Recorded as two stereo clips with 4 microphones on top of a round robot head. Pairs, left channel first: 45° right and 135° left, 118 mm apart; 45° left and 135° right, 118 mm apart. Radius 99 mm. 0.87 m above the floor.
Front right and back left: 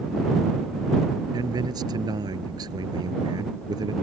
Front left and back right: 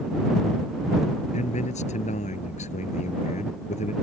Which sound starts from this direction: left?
A man speaking, at 1.3 s.